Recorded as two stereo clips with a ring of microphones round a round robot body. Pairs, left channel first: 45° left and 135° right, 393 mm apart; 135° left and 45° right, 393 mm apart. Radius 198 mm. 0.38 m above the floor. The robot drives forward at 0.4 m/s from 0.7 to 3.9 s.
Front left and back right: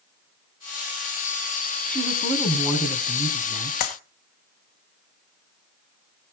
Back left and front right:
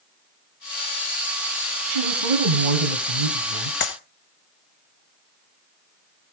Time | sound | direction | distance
1.9 | a woman speaking | 40° right | 3.5 m
3.8 | a clap | 75° left | 1.9 m